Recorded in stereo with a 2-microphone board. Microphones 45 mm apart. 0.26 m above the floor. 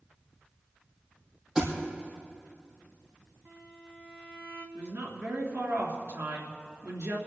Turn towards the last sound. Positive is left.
turn(degrees=-65)  # may be behind; listen again after turning